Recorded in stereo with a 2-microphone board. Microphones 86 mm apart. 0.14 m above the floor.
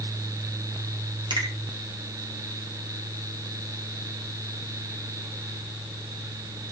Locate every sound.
1.3 s a finger snap: 65° right (ahead or behind), 4.5 m